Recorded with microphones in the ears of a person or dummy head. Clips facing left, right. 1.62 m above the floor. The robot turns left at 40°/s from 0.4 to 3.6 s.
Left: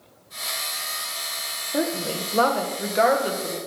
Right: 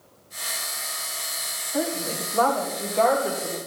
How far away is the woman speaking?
About 1.6 m.